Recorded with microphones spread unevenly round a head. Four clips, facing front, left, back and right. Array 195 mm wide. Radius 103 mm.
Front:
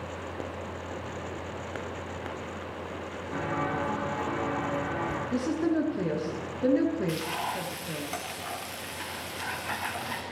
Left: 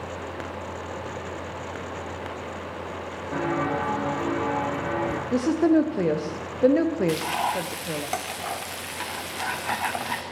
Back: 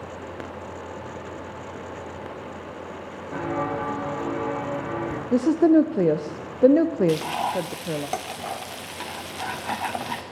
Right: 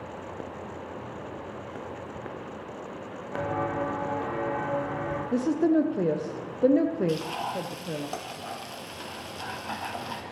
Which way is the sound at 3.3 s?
110° left.